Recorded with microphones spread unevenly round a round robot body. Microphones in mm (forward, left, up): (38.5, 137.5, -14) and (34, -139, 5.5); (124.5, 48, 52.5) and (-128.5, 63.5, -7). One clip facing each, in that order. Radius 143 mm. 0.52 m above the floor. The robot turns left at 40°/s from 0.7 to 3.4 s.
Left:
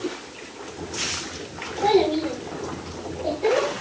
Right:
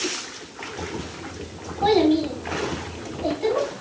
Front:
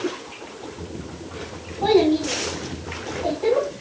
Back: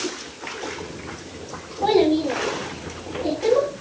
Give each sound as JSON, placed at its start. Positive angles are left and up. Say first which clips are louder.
{"t": 1.8, "sound": "a child speaking", "louder": "right 2 dB, front 1 dB", "azimuth_deg": -65, "distance_m": 4.0}